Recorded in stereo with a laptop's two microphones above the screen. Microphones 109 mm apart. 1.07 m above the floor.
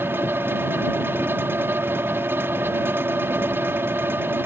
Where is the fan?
20° right (ahead or behind).